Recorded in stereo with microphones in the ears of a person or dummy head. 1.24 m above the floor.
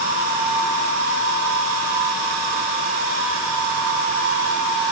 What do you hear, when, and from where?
Only background noise.